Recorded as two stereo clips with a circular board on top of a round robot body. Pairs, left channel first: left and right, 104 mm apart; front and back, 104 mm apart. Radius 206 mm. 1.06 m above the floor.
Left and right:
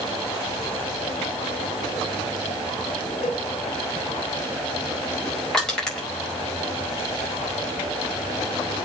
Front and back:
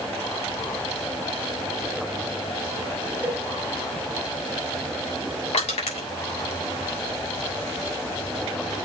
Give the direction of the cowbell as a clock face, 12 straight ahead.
8 o'clock.